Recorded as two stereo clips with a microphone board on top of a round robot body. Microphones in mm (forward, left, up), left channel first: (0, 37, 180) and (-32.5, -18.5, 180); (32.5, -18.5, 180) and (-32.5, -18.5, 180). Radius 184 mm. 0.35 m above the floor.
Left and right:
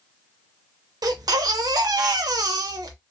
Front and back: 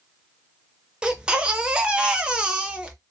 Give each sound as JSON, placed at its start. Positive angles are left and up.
{"t": 1.0, "sound": "a baby crying", "azimuth_deg": -100, "distance_m": 0.5}